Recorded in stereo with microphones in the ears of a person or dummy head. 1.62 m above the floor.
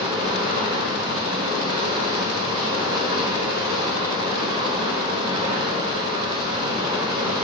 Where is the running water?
30° right (ahead or behind), 1.0 m.